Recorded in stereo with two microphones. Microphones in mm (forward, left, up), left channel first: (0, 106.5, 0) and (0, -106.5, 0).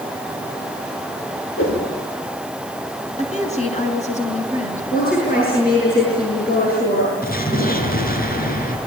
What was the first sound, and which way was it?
A whoosh, 75° left (ahead or behind).